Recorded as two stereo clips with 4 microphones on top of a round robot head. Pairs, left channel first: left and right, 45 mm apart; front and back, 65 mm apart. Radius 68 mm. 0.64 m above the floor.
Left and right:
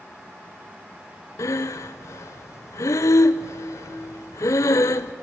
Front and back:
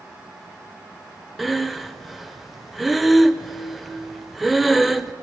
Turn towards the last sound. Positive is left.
turn(degrees=90)